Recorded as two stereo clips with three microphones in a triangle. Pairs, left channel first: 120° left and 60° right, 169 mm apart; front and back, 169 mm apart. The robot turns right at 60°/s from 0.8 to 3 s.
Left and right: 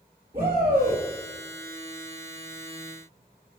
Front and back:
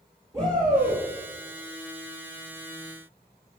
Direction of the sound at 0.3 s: 110° right.